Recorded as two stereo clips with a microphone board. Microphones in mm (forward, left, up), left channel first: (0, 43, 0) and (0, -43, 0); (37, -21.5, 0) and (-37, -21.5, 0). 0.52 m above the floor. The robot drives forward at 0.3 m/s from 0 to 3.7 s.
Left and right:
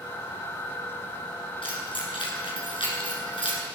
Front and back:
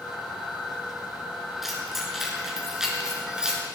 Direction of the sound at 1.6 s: 95° left.